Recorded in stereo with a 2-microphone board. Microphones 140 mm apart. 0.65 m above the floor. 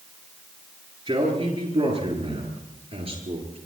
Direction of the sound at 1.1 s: 35° right (ahead or behind).